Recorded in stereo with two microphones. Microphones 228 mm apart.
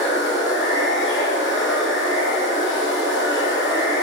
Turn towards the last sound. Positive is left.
turn(degrees=65)  # may be behind; listen again after turning